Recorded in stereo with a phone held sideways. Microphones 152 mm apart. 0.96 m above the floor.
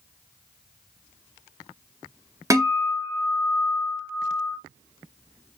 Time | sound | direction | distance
2.5 | a guitar | 20° right (ahead or behind) | 0.6 m